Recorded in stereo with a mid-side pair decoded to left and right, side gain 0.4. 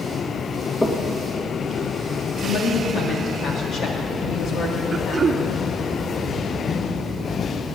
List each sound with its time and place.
0.8 s knocking: 20° left, 1.9 m
2.4 s a woman speaking: 70° left, 2.5 m
4.9 s throat clearing: 40° right, 1.0 m